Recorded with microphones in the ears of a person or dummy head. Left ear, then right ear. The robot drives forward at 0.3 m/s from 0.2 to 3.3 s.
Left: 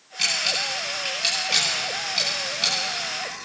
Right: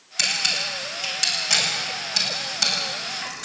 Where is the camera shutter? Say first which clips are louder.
Right 1 dB; 50° right (ahead or behind), 8.5 m; by 3.4 s 45° right (ahead or behind), 9 m.